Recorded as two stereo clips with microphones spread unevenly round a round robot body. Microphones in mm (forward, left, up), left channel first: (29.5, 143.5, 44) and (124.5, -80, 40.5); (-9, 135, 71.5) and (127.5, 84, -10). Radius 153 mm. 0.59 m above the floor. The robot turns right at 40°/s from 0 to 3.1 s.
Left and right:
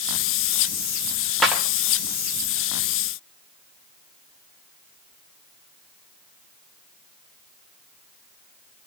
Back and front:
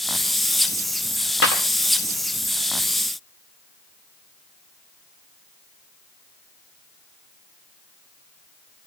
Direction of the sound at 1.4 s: 160° right.